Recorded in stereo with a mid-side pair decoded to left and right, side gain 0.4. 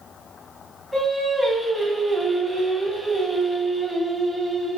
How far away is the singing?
About 1.2 m.